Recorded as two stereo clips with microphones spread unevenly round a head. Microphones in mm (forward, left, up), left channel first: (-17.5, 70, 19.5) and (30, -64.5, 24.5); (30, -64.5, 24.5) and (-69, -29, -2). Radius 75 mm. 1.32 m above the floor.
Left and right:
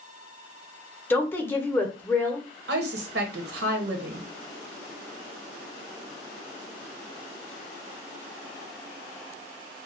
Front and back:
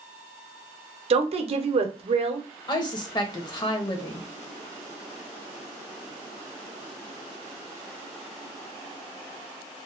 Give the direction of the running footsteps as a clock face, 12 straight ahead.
I don't hear running footsteps.